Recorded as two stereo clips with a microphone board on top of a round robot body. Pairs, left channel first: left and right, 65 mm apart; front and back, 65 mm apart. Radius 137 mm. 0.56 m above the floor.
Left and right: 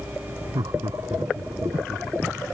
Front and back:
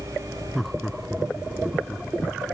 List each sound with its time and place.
0.6 s laughter: 90° right; by 2.1 s 100° right